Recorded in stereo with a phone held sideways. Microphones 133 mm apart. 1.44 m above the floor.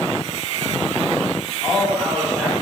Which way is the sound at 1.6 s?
Centre (ahead or behind).